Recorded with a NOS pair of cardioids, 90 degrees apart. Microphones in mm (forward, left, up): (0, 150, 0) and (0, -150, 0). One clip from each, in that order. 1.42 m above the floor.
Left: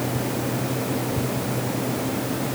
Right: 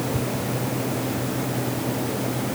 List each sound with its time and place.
Only background noise.